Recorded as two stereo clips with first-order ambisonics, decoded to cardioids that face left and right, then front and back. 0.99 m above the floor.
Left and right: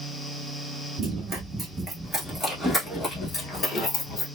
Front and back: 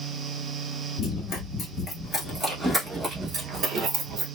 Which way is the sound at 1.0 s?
35° right.